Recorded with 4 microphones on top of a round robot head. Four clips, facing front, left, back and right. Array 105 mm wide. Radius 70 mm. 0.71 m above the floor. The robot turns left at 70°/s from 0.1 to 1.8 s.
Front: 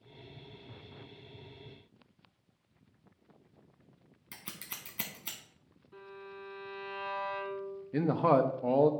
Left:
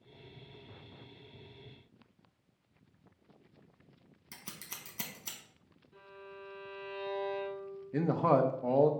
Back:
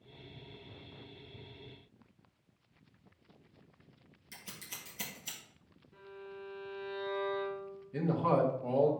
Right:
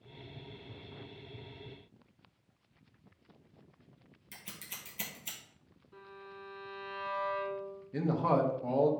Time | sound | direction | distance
4.3 | scissors | 30° left | 0.9 m
5.9 | a violin | 15° right | 3.5 m
7.9 | a man speaking | 30° left | 0.8 m